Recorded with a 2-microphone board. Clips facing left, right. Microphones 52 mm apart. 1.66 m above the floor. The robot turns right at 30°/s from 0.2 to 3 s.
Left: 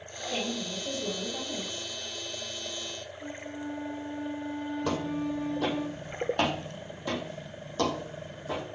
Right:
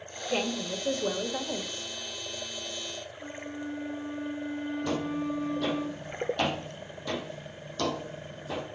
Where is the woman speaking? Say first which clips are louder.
Right 3 dB; 110° right, 1.2 m; by 1.8 s 65° right, 1.2 m.